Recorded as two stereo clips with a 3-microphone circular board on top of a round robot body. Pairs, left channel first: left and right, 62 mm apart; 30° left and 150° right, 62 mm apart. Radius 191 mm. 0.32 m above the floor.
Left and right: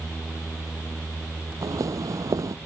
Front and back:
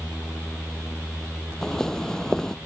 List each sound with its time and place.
1.6 s footsteps: 55° right